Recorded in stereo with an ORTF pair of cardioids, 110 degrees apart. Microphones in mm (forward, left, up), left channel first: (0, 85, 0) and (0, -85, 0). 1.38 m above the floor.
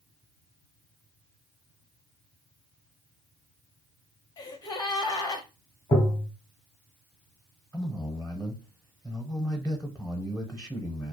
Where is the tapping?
20° left, 0.6 m.